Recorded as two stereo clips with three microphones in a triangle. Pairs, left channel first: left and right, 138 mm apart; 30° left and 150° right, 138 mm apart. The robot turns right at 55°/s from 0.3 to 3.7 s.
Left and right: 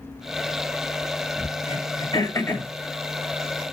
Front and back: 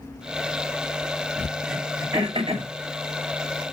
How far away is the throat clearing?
About 2 m.